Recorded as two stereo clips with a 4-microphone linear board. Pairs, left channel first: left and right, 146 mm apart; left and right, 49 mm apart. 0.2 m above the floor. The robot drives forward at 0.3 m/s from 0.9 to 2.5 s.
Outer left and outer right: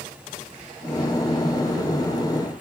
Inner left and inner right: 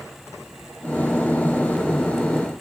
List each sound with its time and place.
Only background noise.